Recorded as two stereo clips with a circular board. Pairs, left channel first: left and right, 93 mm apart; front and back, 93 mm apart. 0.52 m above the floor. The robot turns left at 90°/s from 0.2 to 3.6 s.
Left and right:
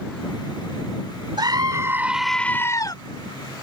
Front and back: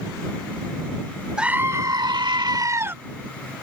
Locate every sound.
1.4 s a scream: 100° right; by 3.0 s 115° left